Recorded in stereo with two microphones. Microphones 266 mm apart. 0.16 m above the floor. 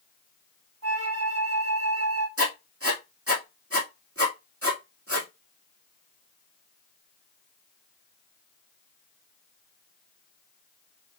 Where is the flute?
60° right (ahead or behind), 3 m.